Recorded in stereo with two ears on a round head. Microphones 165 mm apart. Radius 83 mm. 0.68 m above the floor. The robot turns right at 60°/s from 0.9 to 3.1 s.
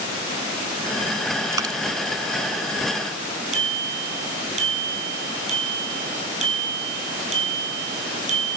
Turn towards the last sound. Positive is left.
turn(degrees=-40)  # may be behind; listen again after turning